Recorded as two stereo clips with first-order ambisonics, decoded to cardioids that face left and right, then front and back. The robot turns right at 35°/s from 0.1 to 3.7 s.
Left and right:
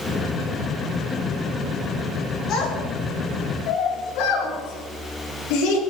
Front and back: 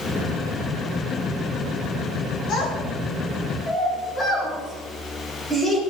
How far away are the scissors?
I don't hear scissors.